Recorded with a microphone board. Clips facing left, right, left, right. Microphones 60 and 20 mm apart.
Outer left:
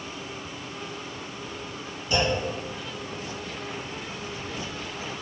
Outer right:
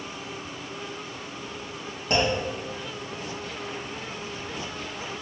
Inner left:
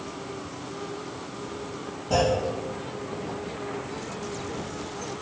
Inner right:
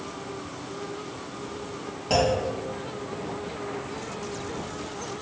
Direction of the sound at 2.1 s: 60° right (ahead or behind).